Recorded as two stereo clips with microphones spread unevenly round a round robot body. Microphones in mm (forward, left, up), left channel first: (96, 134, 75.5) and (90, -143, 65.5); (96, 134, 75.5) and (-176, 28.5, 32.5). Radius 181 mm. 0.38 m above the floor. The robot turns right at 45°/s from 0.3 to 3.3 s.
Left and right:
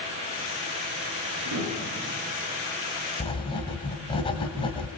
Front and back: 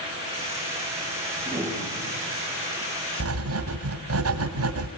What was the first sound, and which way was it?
A piano, 70° right.